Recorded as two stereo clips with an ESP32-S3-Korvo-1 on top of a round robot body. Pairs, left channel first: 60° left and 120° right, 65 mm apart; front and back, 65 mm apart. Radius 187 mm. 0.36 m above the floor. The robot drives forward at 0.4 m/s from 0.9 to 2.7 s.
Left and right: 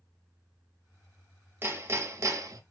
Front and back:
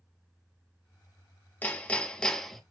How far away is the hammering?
About 1.1 m.